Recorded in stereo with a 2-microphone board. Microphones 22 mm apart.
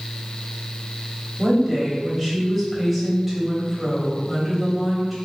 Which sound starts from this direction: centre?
A woman speaking, at 1.4 s.